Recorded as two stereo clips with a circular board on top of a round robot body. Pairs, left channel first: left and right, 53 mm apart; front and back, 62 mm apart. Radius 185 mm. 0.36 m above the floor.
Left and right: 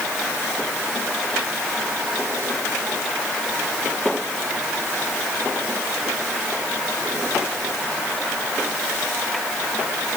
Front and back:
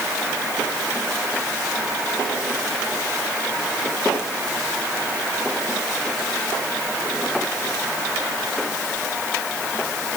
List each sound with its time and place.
Only background noise.